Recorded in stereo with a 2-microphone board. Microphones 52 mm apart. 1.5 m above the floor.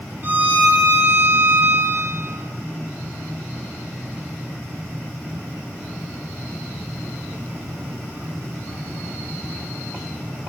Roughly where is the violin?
Right.